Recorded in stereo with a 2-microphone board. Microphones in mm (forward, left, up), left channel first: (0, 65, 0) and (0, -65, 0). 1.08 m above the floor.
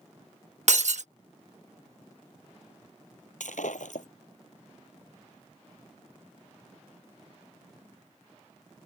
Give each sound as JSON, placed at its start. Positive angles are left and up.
{"t": 0.7, "sound": "breaking glass", "side_deg": -70}
{"t": 3.4, "sound": "breaking glass", "side_deg": 80}